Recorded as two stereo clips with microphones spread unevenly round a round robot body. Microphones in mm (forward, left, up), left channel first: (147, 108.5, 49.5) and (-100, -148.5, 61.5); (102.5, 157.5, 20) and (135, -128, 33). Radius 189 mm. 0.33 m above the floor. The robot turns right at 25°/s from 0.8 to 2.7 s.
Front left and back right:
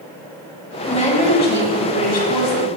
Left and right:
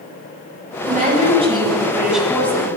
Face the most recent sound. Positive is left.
turn(degrees=20)